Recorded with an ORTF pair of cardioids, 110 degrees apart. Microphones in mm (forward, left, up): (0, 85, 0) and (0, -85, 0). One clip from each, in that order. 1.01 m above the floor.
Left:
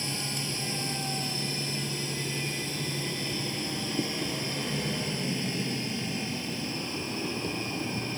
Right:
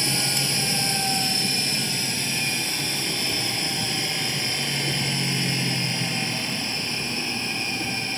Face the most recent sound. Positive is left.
turn(degrees=-55)